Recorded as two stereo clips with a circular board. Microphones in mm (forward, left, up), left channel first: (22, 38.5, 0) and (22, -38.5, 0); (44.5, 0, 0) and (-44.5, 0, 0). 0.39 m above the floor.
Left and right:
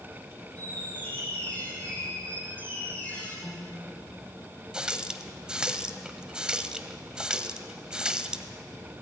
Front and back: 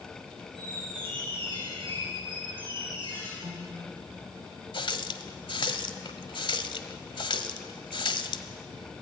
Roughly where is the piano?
Behind.